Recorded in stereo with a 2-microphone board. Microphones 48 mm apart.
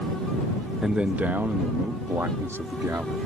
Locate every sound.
0.8 s a man speaking: 15° right (ahead or behind); by 3.2 s 70° right (ahead or behind)